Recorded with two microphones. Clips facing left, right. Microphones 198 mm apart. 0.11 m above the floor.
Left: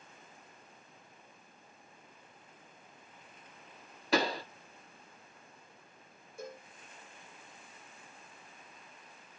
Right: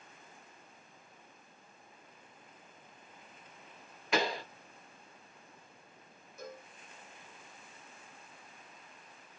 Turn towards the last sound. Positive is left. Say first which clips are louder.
# left 2 dB
turn(degrees=30)  # may be behind; listen again after turning